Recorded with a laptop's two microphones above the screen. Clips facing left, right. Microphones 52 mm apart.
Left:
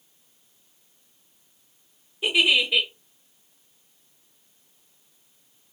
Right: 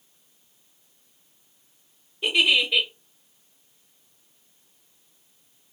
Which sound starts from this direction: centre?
A giggle, at 2.2 s.